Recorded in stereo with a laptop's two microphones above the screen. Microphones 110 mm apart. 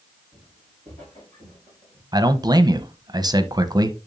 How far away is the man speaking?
About 0.8 m.